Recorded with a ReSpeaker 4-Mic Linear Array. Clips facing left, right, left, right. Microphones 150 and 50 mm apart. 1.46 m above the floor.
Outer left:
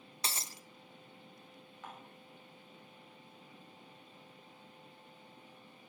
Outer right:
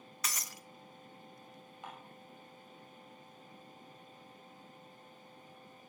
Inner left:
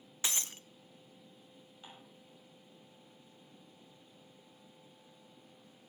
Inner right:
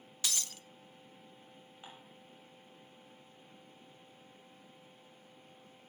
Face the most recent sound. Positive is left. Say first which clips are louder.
# outer right 1 dB, inner right 1 dB
turn(degrees=-15)  # may be behind; listen again after turning